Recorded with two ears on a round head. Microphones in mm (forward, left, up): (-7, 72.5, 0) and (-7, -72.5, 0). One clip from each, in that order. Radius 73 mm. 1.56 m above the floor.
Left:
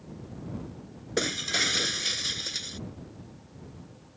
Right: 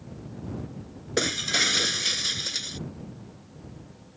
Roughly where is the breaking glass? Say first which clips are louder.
Right 3 dB; centre.